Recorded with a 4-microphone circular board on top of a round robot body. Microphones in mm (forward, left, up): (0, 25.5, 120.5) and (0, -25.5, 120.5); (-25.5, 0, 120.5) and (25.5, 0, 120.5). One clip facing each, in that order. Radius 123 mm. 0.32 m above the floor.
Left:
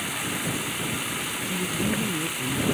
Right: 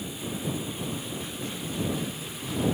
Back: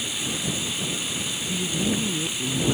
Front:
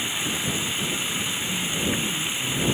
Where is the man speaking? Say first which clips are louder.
Left 4 dB, back 3 dB; 135° left.